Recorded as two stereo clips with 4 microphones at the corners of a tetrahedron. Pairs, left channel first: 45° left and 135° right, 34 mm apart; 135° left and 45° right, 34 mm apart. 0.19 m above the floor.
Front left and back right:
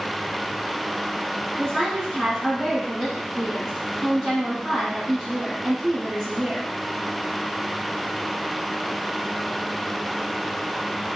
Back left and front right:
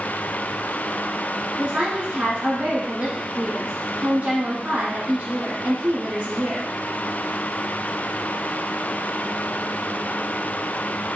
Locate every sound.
1.6 s a woman speaking: 55° right, 1.8 m